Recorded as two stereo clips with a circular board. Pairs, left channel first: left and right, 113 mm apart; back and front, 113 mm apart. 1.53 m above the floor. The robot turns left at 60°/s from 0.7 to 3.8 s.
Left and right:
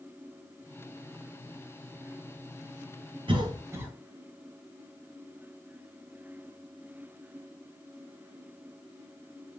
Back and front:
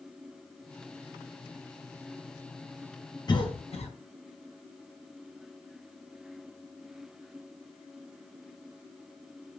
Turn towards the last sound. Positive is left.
turn(degrees=-160)